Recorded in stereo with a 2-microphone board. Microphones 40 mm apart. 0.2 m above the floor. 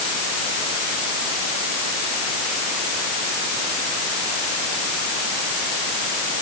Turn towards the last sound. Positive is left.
No sound to turn to.